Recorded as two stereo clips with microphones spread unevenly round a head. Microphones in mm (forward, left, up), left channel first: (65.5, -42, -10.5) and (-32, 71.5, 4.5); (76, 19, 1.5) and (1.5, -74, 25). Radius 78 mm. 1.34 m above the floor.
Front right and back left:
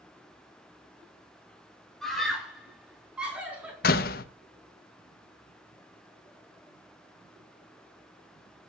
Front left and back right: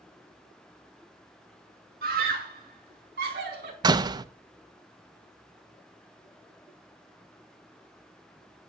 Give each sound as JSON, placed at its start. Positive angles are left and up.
{"t": 2.0, "sound": "a scream", "azimuth_deg": -140, "distance_m": 3.0}
{"t": 3.8, "sound": "a door slam", "azimuth_deg": -80, "distance_m": 0.7}